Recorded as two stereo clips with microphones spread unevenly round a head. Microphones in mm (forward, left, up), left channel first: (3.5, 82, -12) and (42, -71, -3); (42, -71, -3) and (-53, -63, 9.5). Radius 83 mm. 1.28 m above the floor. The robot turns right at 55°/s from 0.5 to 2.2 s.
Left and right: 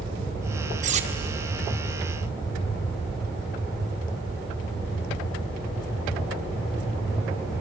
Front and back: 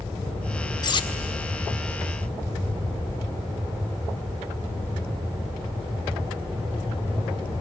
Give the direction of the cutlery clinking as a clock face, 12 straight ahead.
2 o'clock.